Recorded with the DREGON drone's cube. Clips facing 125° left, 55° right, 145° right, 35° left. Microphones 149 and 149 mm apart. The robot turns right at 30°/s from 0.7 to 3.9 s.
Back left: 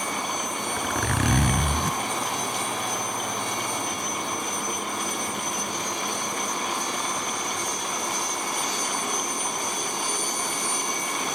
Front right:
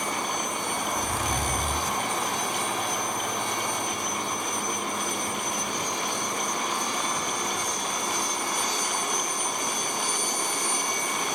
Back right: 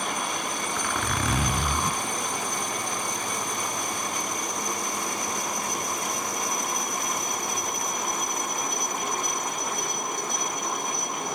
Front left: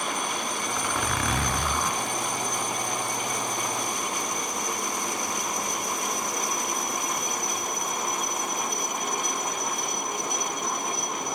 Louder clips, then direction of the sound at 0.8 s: Back left 5 dB, front left 1 dB; 105° left.